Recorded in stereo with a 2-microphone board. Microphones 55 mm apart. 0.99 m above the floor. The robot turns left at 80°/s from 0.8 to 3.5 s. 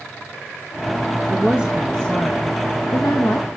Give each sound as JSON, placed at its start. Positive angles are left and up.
{"t": 1.3, "sound": "a woman speaking", "azimuth_deg": -135, "distance_m": 0.9}